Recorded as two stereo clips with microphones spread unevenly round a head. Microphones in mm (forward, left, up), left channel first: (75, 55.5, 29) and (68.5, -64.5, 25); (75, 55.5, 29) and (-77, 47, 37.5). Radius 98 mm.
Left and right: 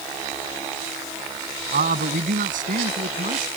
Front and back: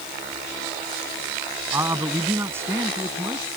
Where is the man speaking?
100° right.